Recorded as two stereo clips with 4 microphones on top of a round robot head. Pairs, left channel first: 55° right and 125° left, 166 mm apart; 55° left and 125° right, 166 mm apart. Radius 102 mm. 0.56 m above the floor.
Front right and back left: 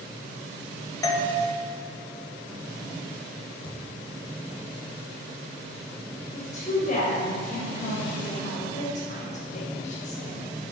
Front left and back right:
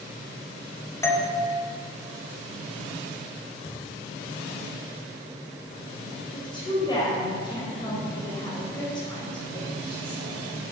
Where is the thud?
10° left, 2.5 m.